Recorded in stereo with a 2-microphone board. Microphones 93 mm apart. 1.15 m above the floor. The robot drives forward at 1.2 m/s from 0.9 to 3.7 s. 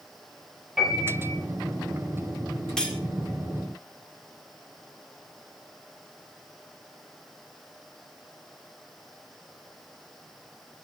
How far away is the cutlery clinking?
About 1.7 m.